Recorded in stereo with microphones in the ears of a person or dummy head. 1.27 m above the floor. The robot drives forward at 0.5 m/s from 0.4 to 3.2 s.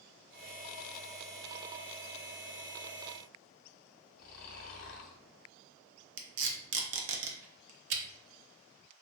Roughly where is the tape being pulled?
Right.